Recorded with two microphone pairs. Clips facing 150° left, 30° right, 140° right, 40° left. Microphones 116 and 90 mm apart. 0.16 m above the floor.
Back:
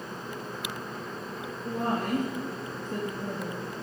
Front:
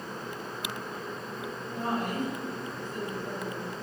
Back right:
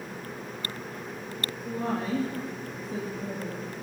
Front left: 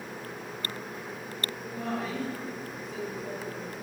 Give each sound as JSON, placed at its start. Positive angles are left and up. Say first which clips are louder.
{"t": 1.6, "sound": "a woman speaking", "louder": "back 3 dB, back right 4 dB", "azimuth_deg": 170, "distance_m": 3.5}